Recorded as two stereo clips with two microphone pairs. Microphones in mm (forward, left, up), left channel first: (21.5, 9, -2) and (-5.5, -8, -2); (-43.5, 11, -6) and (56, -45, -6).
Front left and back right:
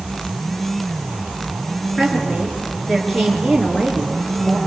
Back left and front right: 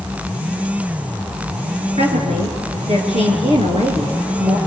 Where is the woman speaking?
50° right, 6 m.